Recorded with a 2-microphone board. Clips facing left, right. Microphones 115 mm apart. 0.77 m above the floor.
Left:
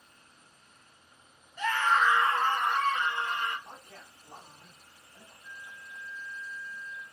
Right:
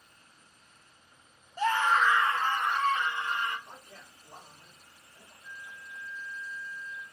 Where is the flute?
Centre (ahead or behind), 1.0 m.